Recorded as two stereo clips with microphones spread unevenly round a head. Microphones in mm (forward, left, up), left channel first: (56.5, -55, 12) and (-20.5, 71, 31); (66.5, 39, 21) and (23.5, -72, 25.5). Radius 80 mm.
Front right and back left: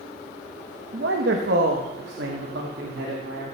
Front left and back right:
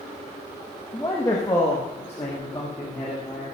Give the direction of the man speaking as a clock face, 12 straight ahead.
7 o'clock.